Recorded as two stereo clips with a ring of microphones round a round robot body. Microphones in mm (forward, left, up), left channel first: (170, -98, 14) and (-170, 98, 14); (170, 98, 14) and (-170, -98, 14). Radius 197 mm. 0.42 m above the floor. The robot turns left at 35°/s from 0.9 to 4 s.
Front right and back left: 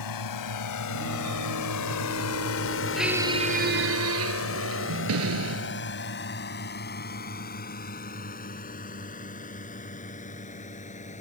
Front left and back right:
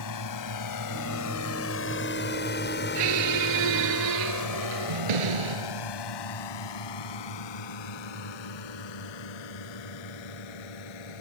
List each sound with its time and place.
0.0 s a drone: 5° right; by 11.2 s 40° left
3.0 s a squeak: 120° right; by 5.9 s 155° right